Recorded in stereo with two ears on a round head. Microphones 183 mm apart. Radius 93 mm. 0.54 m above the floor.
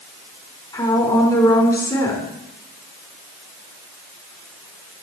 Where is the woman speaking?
15° left (ahead or behind), 4.5 m.